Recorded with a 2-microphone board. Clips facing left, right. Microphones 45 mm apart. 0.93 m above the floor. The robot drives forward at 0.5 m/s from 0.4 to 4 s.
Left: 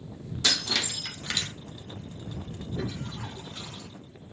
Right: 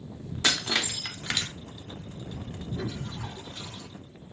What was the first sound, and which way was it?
Breaking glass, 30° right (ahead or behind).